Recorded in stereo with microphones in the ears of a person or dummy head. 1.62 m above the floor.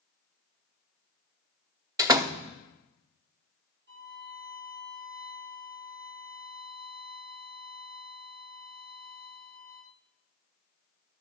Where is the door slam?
20° right (ahead or behind), 0.7 m.